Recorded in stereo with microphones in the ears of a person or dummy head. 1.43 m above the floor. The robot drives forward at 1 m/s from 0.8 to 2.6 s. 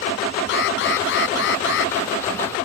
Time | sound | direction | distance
0.5 | an alarm | 65° left (ahead or behind) | ?